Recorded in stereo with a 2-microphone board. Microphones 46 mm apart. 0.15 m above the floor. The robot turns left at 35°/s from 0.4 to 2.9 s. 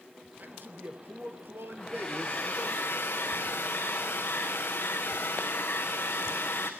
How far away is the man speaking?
About 2.5 m.